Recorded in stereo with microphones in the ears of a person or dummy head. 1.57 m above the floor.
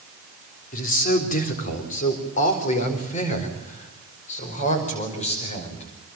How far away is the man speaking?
About 4 m.